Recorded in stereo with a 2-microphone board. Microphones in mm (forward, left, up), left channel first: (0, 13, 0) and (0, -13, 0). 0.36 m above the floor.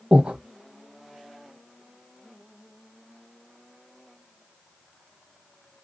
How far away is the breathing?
About 0.7 m.